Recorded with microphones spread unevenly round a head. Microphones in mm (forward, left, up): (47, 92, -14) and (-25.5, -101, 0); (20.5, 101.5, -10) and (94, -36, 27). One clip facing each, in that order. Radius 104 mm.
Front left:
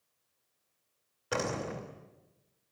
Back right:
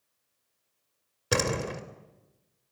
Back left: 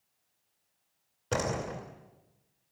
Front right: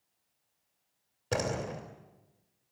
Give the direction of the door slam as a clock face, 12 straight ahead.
5 o'clock.